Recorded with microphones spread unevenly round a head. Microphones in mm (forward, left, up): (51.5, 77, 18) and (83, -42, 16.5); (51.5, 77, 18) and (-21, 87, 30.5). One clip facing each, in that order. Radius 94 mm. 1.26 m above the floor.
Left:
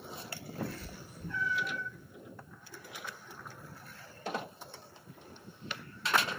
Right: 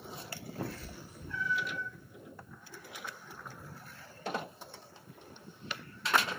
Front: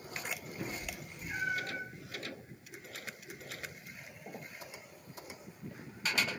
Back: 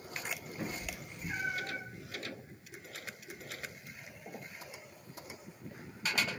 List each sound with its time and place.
0.6 s a cat meowing: 130° left, 0.7 m